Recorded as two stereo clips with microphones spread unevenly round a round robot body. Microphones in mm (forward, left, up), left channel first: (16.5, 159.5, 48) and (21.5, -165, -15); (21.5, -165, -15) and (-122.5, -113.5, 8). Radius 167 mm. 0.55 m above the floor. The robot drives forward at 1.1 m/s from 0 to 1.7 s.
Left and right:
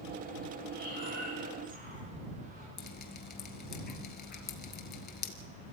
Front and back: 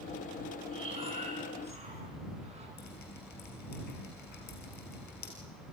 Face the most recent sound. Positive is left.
turn(degrees=30)